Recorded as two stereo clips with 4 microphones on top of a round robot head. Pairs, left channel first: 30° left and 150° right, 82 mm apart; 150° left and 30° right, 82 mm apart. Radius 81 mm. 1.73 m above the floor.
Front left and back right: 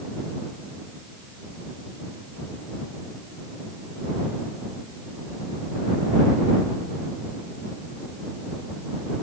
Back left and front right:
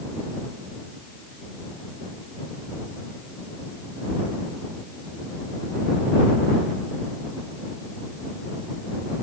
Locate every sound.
Only background noise.